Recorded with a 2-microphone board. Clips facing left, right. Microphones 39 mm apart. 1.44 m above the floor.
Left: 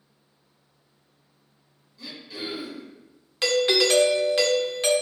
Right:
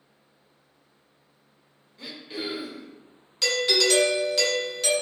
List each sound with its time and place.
2.0 s throat clearing: 45° right (ahead or behind), 0.7 m
3.4 s a doorbell: 30° left (ahead or behind), 0.5 m